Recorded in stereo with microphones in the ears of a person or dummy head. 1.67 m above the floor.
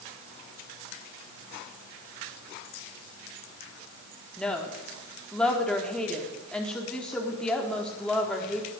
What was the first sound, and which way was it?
A woman speaking, 10° left (ahead or behind).